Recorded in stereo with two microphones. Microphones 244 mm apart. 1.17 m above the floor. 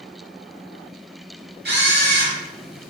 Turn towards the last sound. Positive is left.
turn(degrees=-45)  # may be behind; listen again after turning